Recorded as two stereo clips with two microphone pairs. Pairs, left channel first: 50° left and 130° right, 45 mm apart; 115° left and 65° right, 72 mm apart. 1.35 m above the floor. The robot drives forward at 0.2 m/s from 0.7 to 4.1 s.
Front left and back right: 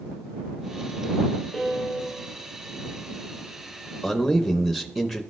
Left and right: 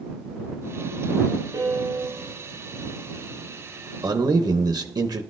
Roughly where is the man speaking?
Ahead right.